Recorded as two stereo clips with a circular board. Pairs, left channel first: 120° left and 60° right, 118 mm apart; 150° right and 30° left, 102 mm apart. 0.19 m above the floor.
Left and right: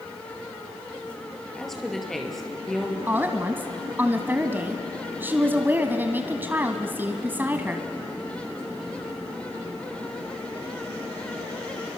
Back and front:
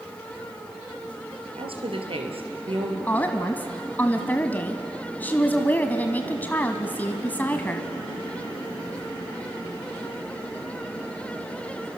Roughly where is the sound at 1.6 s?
Ahead left.